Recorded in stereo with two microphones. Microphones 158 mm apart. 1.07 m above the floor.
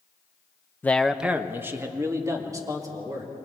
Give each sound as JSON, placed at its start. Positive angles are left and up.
{"t": 0.8, "sound": "a man speaking", "side_deg": 10, "distance_m": 0.7}